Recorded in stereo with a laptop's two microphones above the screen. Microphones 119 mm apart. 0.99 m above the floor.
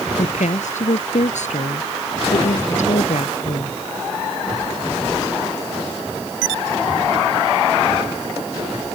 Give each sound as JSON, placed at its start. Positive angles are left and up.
{"t": 0.2, "sound": "a woman speaking", "side_deg": 85}